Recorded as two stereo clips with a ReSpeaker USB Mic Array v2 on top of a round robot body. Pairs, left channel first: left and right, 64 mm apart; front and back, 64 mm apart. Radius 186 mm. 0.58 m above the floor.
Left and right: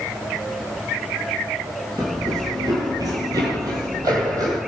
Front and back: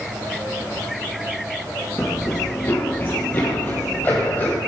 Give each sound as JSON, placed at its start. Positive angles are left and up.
{"t": 2.0, "sound": "running footsteps", "azimuth_deg": -50, "distance_m": 0.6}